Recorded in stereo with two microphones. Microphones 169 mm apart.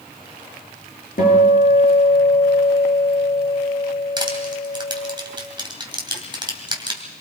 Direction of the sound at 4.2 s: 30° right (ahead or behind).